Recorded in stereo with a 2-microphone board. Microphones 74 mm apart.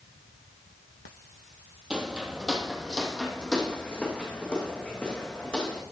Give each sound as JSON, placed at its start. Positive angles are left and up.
{"t": 1.9, "sound": "footsteps", "side_deg": -15, "distance_m": 1.4}